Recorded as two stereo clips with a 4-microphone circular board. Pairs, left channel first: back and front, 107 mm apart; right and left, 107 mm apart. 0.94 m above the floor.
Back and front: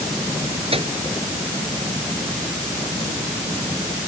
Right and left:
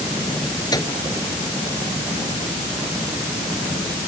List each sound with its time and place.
0.7 s a microwave: 35° right